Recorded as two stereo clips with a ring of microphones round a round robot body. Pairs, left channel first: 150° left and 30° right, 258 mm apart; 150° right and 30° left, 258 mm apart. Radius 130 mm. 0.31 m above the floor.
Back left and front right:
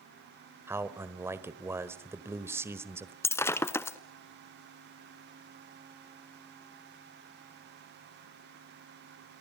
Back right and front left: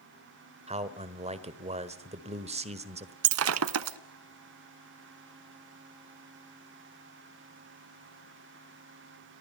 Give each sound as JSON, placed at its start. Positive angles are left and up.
{"t": 0.7, "sound": "a man speaking", "azimuth_deg": 35, "distance_m": 1.4}
{"t": 3.2, "sound": "breaking glass", "azimuth_deg": 70, "distance_m": 0.8}